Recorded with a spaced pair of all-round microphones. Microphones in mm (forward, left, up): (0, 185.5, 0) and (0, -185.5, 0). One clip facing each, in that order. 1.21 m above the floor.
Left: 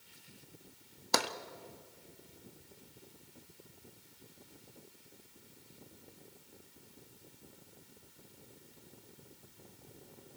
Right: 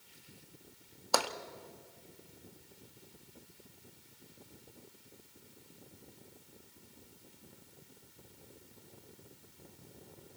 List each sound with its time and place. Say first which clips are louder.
1.1 s tapping: right 1 dB; 30° left (ahead or behind), 1.0 m